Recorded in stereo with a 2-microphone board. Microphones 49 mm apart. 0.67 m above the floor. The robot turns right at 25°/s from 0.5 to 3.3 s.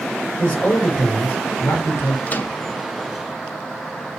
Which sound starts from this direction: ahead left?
A man speaking, at 0.4 s.